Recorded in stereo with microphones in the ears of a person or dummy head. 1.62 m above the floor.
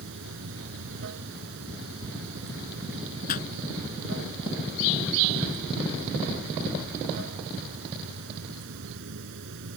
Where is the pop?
50° left (ahead or behind).